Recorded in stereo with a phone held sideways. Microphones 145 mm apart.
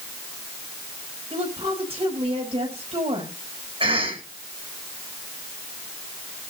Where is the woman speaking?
40° right (ahead or behind), 6.5 m.